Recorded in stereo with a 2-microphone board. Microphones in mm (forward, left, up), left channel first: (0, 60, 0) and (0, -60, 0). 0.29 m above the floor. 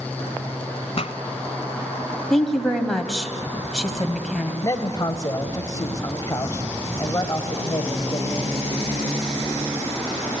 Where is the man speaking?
30° left (ahead or behind), 1.5 m.